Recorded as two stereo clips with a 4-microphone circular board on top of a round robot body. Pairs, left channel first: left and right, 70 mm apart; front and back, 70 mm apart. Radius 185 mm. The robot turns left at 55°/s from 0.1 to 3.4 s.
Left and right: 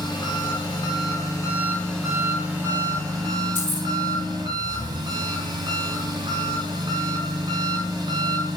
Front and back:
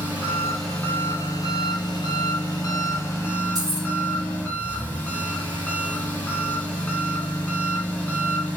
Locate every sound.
0.0 s an engine running: 110° left, 3 m; by 8.6 s 70° right, 3 m
3.5 s keys jangling: 150° left, 2 m